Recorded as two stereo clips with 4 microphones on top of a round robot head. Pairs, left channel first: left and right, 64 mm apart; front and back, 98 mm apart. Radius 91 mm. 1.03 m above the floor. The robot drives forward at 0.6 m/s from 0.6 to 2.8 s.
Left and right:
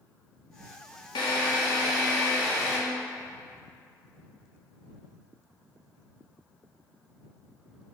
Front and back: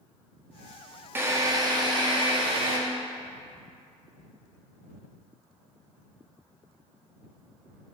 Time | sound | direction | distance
1.1 | a drill | 110° left | 0.8 m